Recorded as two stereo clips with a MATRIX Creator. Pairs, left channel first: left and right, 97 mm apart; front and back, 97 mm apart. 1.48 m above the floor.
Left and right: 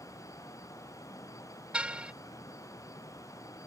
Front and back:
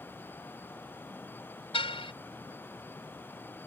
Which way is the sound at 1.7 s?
10° right.